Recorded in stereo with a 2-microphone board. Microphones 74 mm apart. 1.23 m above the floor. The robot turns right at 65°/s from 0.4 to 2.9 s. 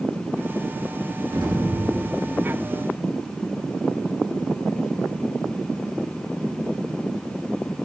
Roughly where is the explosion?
Right.